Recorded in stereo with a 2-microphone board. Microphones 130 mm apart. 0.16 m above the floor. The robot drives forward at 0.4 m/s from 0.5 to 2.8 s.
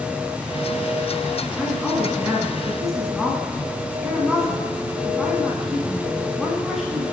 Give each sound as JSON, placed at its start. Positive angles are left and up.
{"t": 1.6, "sound": "a woman speaking", "side_deg": 0, "distance_m": 1.4}